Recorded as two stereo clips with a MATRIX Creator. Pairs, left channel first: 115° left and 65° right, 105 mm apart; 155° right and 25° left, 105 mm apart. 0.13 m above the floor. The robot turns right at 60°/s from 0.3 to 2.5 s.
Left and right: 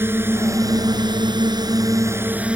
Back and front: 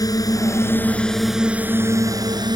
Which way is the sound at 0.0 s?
125° right.